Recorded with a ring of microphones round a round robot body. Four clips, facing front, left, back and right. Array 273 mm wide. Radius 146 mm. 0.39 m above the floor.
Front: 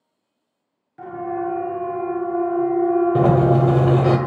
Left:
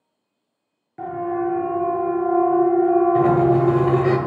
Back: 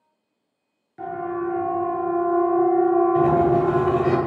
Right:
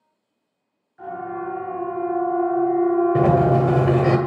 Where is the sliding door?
35° right, 2 m.